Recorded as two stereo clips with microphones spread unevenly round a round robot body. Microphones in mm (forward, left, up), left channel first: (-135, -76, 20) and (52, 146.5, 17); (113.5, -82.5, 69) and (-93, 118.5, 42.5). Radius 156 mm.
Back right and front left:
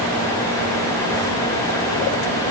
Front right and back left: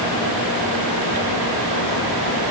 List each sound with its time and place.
Only background noise.